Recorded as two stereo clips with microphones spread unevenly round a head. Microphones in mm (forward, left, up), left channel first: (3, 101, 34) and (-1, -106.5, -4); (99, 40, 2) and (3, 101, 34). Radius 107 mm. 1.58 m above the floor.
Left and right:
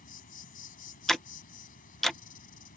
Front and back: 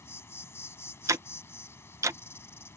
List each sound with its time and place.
0.0 s an insect: 40° left
1.1 s ticking: 165° left